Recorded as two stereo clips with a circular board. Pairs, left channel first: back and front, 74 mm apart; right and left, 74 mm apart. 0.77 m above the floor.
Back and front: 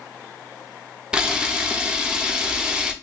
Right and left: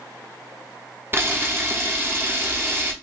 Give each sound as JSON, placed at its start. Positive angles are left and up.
{"t": 1.1, "sound": "a camera shutter", "azimuth_deg": 75, "distance_m": 0.7}